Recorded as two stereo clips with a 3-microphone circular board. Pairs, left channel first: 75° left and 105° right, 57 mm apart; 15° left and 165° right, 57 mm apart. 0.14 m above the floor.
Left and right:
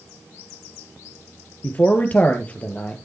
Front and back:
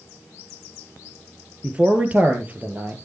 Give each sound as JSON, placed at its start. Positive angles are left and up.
{"t": 1.6, "sound": "a man speaking", "azimuth_deg": 130, "distance_m": 2.5}